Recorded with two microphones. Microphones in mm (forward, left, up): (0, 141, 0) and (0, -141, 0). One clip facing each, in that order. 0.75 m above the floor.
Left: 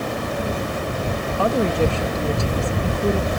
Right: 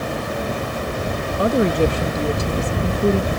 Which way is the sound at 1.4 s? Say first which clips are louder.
Right 3 dB; 20° right (ahead or behind).